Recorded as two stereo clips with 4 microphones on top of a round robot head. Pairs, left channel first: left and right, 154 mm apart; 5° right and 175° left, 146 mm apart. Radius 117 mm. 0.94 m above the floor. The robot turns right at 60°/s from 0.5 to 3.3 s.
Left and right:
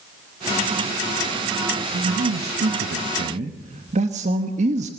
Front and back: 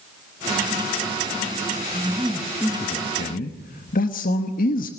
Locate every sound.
1.9 s a man speaking: 120° right, 1.1 m; by 4.9 s 40° right, 1.1 m